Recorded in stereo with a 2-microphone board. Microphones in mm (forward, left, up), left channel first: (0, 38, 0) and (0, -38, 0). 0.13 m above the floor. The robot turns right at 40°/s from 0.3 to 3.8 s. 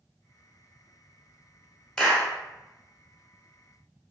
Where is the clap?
10° left (ahead or behind), 0.8 m; by 2.3 s 5° left (ahead or behind), 0.8 m.